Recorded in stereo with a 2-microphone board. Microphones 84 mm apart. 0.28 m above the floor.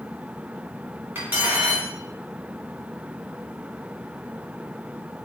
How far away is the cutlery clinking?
About 1.7 m.